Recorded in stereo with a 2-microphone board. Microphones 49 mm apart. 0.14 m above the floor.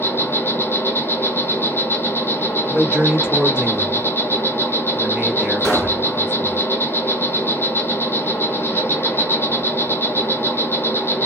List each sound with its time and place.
0.0 s an insect: 50° left (ahead or behind), 1.1 m
2.7 s a man speaking: 15° right (ahead or behind), 1.6 m
5.6 s a pop: 10° left (ahead or behind), 2 m